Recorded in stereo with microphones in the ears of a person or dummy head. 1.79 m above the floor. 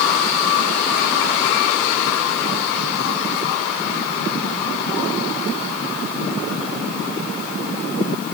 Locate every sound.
Only background noise.